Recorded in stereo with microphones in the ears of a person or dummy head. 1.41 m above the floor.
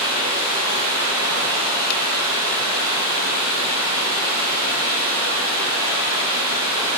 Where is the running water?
80° right, 3 m.